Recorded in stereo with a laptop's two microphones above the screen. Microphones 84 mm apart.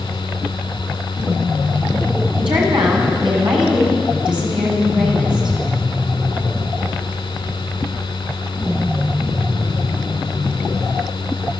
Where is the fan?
85° left, 2.5 m.